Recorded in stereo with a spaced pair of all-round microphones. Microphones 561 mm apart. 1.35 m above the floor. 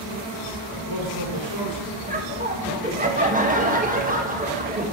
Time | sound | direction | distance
0.8 | a woman speaking | 65° left (ahead or behind) | 5 m
2.1 | laughter | 15° right (ahead or behind) | 1.3 m